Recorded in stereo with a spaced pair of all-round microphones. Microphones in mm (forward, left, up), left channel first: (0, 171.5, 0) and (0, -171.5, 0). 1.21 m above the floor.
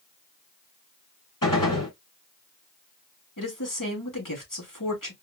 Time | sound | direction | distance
1.4 | a gunshot | 80° left | 2.5 m
3.4 | a woman speaking | 80° left | 3 m